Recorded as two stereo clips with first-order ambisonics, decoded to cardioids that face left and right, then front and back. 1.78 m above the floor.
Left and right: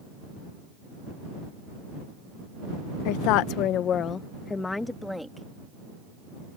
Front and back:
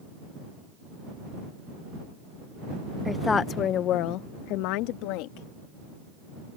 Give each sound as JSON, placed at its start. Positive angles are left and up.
{"t": 3.0, "sound": "a woman speaking", "azimuth_deg": 85}